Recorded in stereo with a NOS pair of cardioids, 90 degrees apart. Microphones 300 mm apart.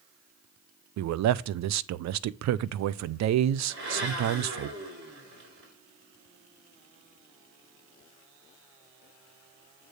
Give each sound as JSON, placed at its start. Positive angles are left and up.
{"t": 1.0, "sound": "a man speaking", "azimuth_deg": -60, "distance_m": 0.5}
{"t": 3.7, "sound": "a blender", "azimuth_deg": -40, "distance_m": 3.5}